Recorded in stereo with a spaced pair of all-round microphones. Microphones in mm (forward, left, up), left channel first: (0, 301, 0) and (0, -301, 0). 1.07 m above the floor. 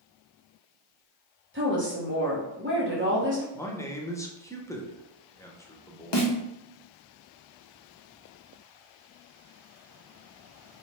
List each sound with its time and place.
1.5 s a woman speaking: 20° right (ahead or behind), 1.3 m
3.5 s a man speaking: 5° left (ahead or behind), 0.6 m
6.1 s a snare drum: 45° left (ahead or behind), 0.9 m